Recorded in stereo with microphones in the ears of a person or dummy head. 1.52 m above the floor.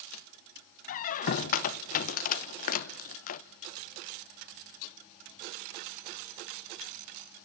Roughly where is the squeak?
Left.